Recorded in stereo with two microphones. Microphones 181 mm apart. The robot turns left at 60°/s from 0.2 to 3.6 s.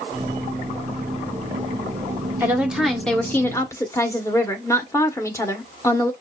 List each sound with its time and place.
2.4 s a woman speaking: 10° right (ahead or behind), 1.3 m; by 6.1 s 15° left (ahead or behind), 1.3 m